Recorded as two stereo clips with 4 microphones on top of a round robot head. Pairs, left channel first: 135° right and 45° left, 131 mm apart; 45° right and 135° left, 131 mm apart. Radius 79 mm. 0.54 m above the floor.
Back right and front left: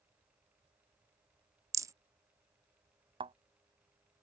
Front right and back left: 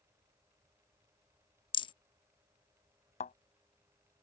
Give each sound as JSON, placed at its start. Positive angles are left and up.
{"t": 1.7, "sound": "a rattle", "azimuth_deg": -10}
{"t": 3.2, "sound": "a thud", "azimuth_deg": -5}